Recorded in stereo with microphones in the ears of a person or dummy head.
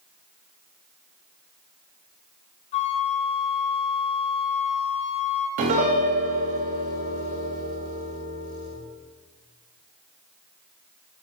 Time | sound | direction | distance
2.7 | a flute | 35° left (ahead or behind) | 1.4 m
5.6 | a piano | 45° right (ahead or behind) | 2.5 m